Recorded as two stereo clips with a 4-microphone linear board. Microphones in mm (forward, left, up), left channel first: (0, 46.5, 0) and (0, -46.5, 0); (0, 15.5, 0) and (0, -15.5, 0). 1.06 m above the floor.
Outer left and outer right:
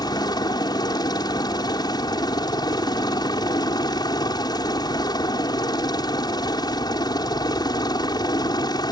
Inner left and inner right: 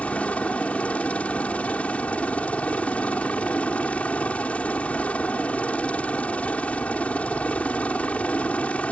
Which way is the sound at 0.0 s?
45° left (ahead or behind).